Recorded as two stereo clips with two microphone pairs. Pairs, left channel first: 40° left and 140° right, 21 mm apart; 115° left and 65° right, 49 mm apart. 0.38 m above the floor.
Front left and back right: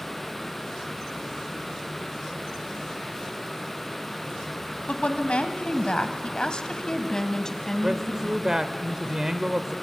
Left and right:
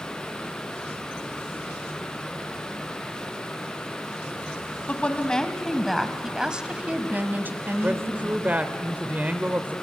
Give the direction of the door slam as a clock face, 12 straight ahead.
I don't hear a door slam.